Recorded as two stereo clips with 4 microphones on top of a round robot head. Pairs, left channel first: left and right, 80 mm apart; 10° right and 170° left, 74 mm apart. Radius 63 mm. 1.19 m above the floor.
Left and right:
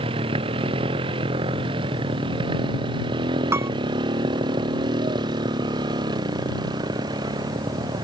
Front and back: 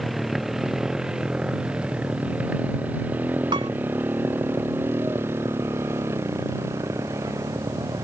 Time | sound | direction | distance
0.0 | a motorcycle | 100° right | ?
3.5 | a piano | 150° right | ?